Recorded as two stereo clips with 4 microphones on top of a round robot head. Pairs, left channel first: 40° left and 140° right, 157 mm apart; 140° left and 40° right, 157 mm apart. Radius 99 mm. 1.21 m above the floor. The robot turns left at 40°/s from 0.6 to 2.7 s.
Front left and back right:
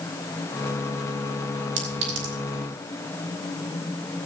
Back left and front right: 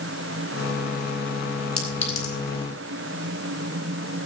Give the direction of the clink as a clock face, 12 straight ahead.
4 o'clock.